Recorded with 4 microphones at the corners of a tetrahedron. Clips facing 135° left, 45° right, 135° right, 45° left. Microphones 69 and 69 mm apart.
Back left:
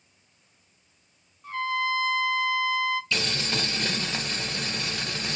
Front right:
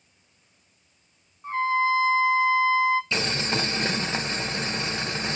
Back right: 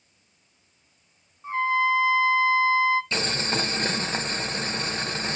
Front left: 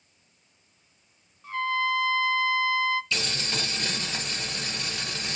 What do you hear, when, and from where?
1.4 s a trumpet: 85° right, 0.8 m
3.1 s boiling: 100° right, 0.9 m